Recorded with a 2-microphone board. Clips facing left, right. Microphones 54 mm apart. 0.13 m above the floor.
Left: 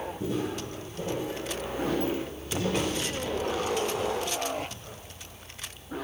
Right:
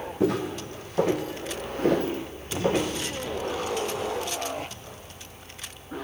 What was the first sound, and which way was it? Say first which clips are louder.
Footsteps: right 7 dB; 90° right.